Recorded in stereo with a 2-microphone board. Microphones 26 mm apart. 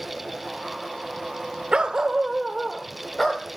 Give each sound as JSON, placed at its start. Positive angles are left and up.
{"t": 1.7, "sound": "a dog barking", "side_deg": -40, "distance_m": 0.9}